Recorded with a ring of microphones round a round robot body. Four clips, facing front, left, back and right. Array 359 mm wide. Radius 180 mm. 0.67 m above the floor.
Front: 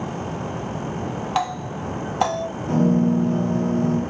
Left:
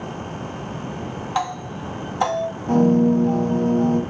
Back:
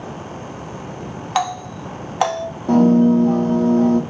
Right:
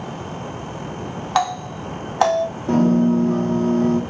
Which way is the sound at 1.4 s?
125° right.